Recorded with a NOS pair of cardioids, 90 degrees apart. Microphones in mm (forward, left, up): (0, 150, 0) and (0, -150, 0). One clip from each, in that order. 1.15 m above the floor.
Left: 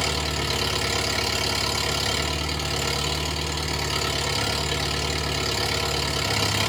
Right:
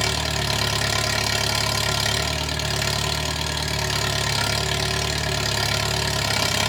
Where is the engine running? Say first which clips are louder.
Right 2 dB; 30° right, 0.8 m.